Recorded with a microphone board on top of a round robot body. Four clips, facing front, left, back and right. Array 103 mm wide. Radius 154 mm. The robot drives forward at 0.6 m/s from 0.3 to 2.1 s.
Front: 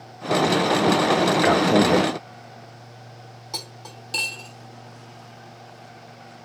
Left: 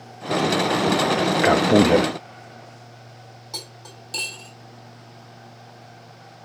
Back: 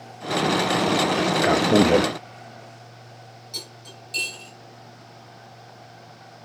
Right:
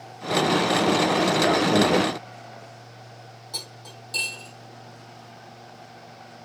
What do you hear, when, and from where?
1.4 s a man speaking: 70° left, 0.7 m; by 2.1 s 130° left, 0.8 m
3.5 s cutlery clinking: 15° left, 3.5 m